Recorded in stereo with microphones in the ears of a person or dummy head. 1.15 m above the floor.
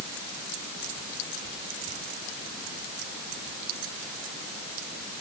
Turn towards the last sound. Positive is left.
No sound to turn to.